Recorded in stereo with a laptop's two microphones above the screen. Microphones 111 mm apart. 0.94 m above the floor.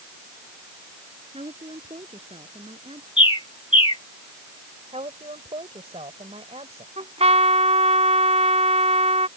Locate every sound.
1.3 s a woman speaking: 65° right (ahead or behind); by 3.1 s 60° right (ahead or behind)
3.2 s a bird: 55° left (ahead or behind)
4.9 s a woman speaking: 75° right (ahead or behind)
7.0 s a trumpet: 75° right (ahead or behind)